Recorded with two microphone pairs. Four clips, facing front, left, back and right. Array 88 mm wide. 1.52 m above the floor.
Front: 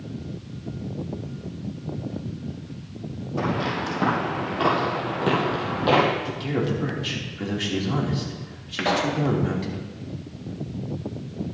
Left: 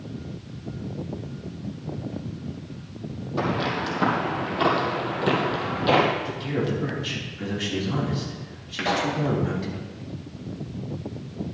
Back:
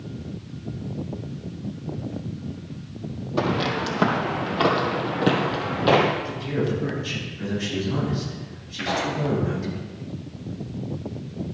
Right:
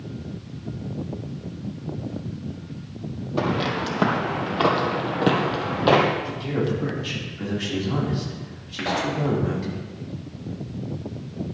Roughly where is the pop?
Ahead.